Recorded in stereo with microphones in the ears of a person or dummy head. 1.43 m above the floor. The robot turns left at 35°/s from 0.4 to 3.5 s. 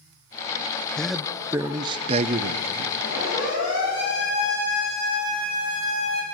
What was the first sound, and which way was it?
A man speaking, 5° left.